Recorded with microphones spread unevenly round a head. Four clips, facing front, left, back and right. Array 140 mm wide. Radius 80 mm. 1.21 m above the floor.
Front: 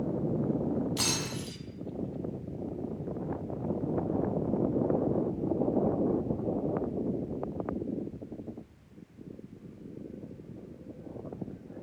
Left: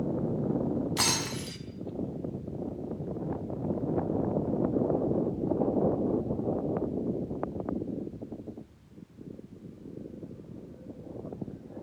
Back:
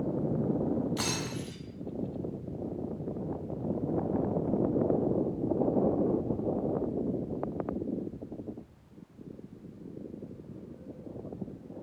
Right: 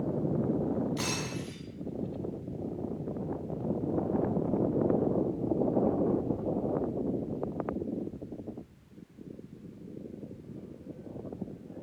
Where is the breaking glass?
65° left, 5 m.